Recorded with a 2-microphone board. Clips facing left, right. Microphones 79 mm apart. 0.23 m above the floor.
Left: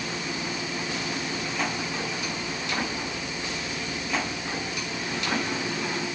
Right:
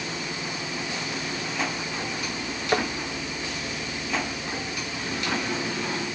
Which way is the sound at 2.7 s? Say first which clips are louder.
Right 7 dB; 70° right (ahead or behind).